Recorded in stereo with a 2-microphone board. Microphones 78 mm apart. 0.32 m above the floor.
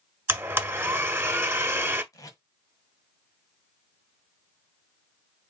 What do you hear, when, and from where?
0.3 s a blender: 30° right (ahead or behind), 1.1 m
2.1 s tape being pulled: 50° left (ahead or behind), 1.2 m